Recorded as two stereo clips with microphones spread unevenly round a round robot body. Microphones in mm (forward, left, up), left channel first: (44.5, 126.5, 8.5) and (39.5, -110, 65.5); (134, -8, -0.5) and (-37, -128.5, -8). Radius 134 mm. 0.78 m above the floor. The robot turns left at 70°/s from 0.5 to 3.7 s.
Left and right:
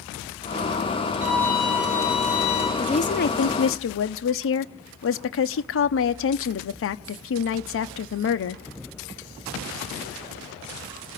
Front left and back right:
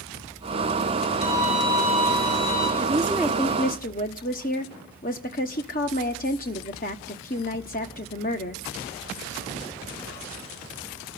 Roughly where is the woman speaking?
Behind left.